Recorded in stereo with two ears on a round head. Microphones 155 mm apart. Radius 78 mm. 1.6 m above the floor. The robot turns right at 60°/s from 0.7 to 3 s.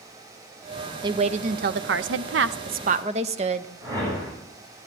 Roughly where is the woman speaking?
Behind right.